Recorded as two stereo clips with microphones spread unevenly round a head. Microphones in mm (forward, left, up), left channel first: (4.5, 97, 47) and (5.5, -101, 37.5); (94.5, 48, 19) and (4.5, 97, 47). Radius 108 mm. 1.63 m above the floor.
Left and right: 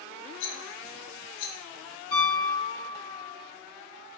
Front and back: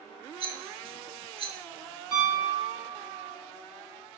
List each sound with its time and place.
0.4 s a rattle: 120° left, 0.7 m
2.1 s a piano: 100° left, 1.8 m